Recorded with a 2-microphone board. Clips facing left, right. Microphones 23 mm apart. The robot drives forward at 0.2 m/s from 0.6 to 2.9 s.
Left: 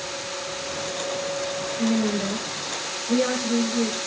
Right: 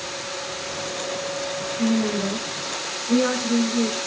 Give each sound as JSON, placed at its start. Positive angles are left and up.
{"t": 1.8, "sound": "a woman speaking", "side_deg": -30, "distance_m": 1.2}